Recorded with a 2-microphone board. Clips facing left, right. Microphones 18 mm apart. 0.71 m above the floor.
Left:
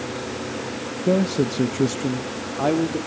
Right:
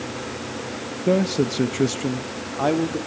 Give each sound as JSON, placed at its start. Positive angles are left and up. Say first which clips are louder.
{"t": 1.1, "sound": "a man speaking", "louder": "even", "side_deg": -15, "distance_m": 0.8}